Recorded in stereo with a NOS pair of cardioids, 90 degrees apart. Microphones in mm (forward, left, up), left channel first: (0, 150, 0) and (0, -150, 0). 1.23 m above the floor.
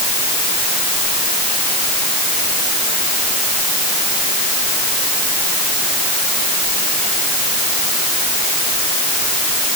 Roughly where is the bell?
I don't hear a bell.